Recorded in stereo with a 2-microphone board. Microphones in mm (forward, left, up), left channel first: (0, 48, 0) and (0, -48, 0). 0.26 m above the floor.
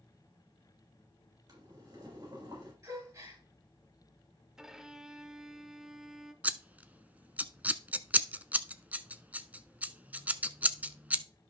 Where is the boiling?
45° right (ahead or behind), 7 m.